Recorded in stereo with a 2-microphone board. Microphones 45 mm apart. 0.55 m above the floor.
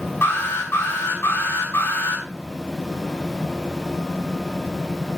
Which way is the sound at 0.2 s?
80° left.